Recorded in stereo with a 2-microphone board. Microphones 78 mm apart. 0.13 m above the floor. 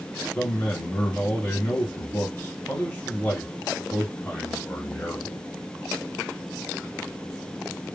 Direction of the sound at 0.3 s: 25° left (ahead or behind).